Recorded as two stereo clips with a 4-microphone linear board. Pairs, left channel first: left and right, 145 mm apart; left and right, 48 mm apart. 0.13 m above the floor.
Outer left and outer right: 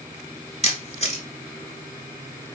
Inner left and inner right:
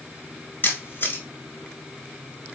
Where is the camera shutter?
45° left (ahead or behind), 1.1 m.